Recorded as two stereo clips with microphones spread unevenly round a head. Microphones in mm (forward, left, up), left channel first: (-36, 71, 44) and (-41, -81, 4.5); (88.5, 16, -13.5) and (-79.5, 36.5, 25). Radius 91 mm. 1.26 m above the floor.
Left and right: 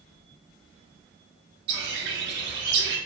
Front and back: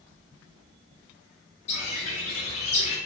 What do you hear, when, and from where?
1.7 s a bird: 65° right, 1.0 m